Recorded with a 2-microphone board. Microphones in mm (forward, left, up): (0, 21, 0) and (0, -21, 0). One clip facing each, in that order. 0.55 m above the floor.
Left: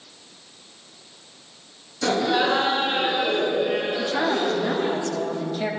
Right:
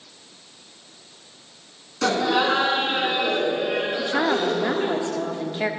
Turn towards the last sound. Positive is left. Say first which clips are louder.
# right 1 dB
turn(degrees=-30)  # may be behind; listen again after turning